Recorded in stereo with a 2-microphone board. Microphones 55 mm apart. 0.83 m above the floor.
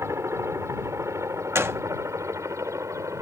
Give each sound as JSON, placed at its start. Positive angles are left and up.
{"t": 0.0, "sound": "a helicopter", "side_deg": -55}
{"t": 1.6, "sound": "a gunshot", "side_deg": -55}